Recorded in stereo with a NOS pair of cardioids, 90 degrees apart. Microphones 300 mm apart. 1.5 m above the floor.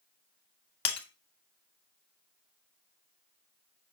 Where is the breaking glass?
60° left, 2.5 m.